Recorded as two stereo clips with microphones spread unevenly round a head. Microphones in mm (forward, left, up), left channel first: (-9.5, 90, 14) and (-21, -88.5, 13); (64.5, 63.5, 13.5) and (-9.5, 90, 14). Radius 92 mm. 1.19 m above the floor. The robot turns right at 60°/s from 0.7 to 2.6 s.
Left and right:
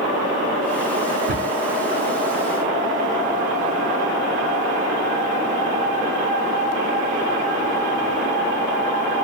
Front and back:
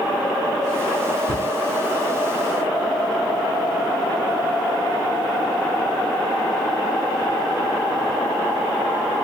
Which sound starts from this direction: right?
A cupboard door, at 1.3 s.